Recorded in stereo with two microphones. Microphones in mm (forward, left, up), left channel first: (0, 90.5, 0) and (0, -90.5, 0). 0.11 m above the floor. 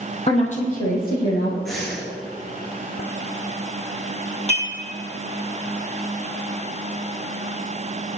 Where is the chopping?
No chopping in this recording.